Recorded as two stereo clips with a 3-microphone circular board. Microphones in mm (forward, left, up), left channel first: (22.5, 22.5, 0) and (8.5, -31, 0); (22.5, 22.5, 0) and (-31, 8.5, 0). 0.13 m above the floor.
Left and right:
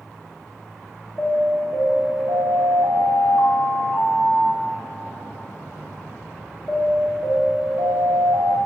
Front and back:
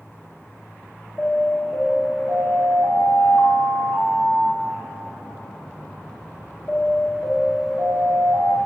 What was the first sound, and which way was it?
An alarm, 45° left.